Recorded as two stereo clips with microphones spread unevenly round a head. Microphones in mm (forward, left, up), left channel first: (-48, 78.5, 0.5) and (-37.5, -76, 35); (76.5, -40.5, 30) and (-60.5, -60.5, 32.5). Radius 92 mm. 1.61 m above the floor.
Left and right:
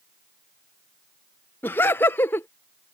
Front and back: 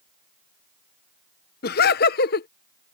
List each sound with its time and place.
1.6 s laughter: 15° left